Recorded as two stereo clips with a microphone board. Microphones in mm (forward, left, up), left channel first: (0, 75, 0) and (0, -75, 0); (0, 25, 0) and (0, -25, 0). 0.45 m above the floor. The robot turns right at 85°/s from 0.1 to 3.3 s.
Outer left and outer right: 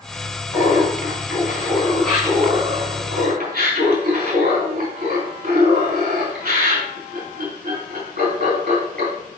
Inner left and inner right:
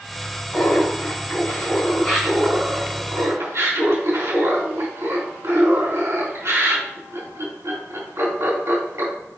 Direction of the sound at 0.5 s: 40° left.